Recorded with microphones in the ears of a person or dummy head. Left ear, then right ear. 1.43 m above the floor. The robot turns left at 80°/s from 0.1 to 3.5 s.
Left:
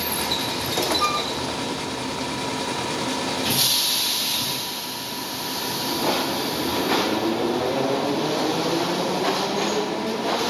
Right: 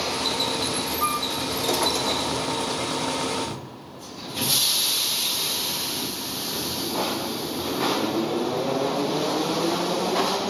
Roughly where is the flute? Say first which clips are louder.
Left 2 dB; left.